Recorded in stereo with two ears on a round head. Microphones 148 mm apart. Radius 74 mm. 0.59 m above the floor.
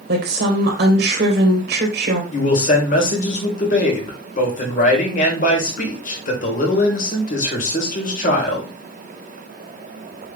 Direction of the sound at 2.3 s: 50° left (ahead or behind).